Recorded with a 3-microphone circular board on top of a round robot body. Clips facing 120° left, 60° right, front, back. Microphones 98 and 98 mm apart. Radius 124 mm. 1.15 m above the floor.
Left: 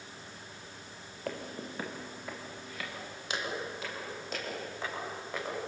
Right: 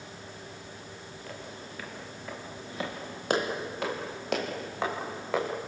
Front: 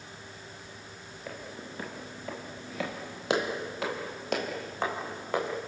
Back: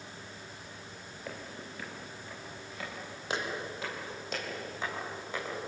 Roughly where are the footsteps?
Left.